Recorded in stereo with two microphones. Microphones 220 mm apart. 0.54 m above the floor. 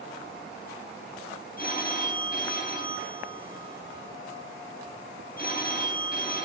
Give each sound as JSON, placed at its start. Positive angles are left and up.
{"t": 1.6, "sound": "a phone ringing", "side_deg": 45, "distance_m": 2.5}